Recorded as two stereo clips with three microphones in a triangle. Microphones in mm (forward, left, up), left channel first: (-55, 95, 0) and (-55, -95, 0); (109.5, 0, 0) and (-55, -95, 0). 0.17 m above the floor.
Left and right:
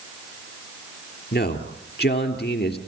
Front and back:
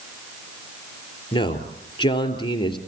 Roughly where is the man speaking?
Left.